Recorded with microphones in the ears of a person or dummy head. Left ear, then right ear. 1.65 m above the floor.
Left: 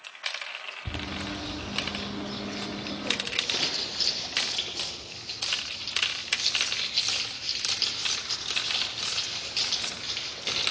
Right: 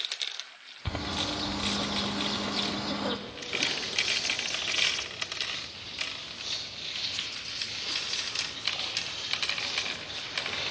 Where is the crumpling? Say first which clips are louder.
Left 5 dB; 60° left (ahead or behind), 4.5 m.